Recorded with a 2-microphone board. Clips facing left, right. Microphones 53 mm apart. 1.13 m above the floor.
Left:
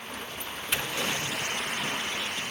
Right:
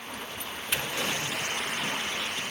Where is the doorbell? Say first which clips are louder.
Left 1 dB; 5° right (ahead or behind), 6 m.